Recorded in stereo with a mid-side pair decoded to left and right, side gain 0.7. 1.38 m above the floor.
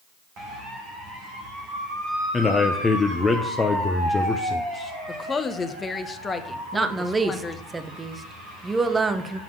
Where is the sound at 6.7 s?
15° right, 0.9 m.